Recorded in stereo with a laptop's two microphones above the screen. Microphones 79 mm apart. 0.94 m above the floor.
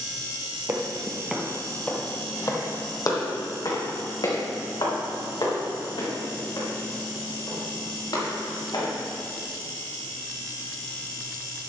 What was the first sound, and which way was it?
Footsteps, 35° right (ahead or behind).